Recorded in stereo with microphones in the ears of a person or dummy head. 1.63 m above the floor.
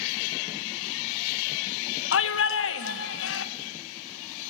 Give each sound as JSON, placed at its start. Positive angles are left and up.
{"t": 2.1, "sound": "a shout", "side_deg": 80, "distance_m": 1.5}